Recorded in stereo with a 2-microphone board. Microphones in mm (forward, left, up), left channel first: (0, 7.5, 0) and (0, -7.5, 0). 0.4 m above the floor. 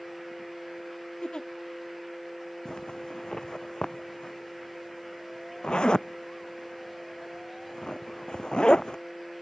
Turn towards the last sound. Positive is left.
turn(degrees=60)  # may be behind; listen again after turning